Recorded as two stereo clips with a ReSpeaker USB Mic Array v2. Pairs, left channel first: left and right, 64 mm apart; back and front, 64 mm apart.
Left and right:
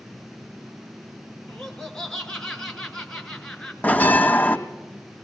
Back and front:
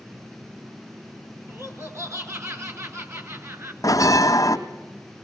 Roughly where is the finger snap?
No finger snap in this recording.